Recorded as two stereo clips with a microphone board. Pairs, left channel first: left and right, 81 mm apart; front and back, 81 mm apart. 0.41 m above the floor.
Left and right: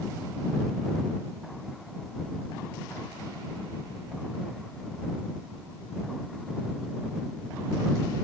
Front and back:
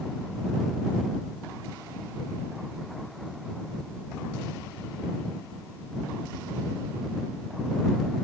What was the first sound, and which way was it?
Only background noise.